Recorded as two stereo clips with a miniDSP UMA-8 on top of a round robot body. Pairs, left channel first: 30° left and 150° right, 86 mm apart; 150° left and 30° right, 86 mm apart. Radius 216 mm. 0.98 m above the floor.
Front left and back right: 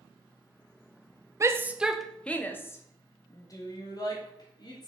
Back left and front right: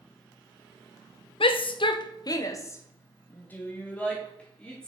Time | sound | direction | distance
1.4 | a shout | 155° left | 0.7 m